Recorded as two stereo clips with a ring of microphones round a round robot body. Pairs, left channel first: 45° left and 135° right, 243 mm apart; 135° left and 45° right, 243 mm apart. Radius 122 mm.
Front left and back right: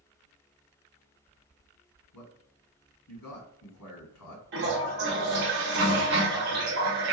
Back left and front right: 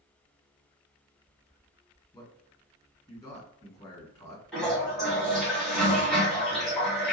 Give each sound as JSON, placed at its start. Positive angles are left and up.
{"t": 2.1, "sound": "a man speaking", "azimuth_deg": 60, "distance_m": 1.8}
{"t": 4.5, "sound": "a toilet flushing", "azimuth_deg": -140, "distance_m": 1.1}